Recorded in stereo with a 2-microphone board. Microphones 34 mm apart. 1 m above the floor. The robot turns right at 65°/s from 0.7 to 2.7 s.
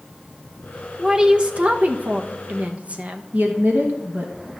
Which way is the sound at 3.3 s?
60° right (ahead or behind).